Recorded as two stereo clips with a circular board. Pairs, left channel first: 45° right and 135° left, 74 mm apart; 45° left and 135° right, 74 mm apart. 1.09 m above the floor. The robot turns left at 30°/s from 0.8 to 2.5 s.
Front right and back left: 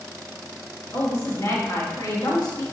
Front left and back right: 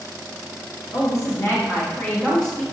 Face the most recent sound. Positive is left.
turn(degrees=-35)